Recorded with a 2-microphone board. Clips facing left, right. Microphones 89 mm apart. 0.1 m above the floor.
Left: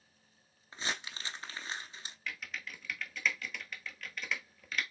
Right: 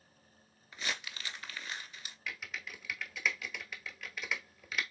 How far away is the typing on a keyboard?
About 0.9 m.